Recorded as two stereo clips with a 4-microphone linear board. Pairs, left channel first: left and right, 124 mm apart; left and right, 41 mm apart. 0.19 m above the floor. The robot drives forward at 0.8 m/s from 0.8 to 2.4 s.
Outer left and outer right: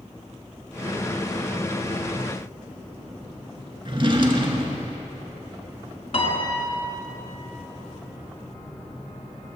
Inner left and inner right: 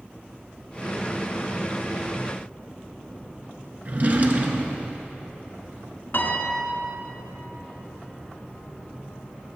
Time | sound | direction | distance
3.9 | a drawer | 45° right (ahead or behind) | 0.7 m
6.1 | a piano | 60° left (ahead or behind) | 1.0 m